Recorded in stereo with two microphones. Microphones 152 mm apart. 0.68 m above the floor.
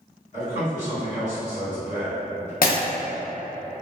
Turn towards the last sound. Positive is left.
turn(degrees=70)  # may be behind; listen again after turning